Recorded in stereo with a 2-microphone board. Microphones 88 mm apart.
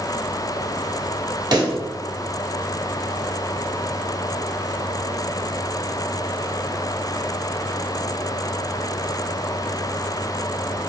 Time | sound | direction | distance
1.5 | a pop | 50° right (ahead or behind) | 1.3 m